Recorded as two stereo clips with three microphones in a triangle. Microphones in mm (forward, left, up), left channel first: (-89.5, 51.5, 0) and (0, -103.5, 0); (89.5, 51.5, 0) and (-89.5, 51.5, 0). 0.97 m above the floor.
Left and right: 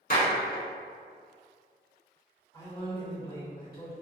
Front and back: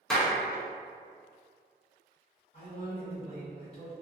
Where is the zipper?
No zipper in this recording.